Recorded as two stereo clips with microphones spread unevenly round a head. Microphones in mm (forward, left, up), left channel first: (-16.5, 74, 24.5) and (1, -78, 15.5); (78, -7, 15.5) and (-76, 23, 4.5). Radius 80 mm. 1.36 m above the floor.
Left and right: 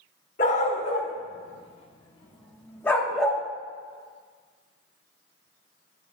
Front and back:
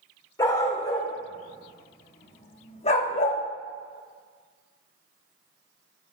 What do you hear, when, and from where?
0.4 s a dog barking: 55° left, 2 m; by 3.4 s 5° left, 1.0 m